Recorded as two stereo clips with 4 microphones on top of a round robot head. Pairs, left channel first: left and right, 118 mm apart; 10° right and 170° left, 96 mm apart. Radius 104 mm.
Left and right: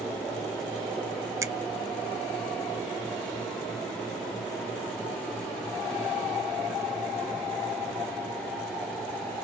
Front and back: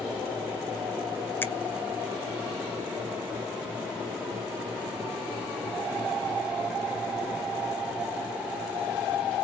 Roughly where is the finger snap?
Ahead right.